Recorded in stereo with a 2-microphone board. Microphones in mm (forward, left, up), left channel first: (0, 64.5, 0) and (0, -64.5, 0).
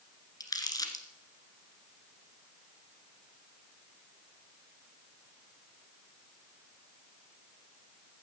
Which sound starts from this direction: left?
Crumpling, at 0.4 s.